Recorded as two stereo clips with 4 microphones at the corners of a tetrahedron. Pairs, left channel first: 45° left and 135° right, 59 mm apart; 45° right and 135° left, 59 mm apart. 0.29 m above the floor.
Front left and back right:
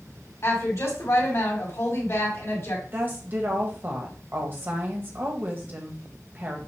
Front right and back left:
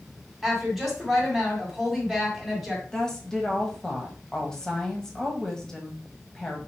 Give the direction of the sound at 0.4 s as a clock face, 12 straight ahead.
10 o'clock.